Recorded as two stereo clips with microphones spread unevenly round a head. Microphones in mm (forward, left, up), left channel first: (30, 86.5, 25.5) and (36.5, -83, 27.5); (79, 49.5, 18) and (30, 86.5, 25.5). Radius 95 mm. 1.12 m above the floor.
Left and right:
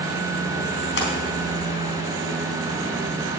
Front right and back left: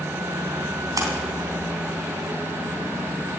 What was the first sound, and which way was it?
A splash, 130° left.